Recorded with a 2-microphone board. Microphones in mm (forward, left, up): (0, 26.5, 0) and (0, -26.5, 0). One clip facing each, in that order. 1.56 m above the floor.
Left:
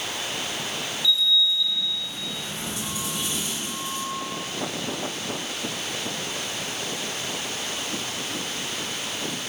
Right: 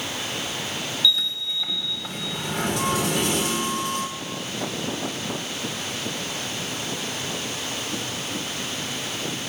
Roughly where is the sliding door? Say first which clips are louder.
Left 3 dB; right.